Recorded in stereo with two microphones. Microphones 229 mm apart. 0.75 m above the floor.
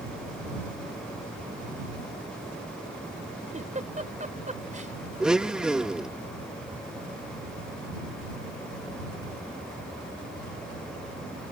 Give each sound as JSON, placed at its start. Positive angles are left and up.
{"t": 3.5, "sound": "a giggle", "side_deg": -35}
{"t": 5.2, "sound": "a blender", "side_deg": -5}